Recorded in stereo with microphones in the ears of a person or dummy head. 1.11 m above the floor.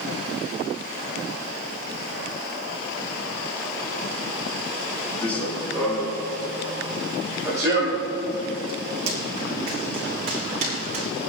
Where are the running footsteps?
5° left (ahead or behind), 4 m; by 11.1 s 50° right (ahead or behind), 5 m.